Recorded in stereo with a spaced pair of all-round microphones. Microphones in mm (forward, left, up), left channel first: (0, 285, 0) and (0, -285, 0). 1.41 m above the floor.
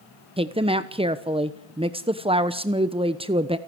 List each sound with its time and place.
0.4 s a woman speaking: 10° right (ahead or behind), 1.0 m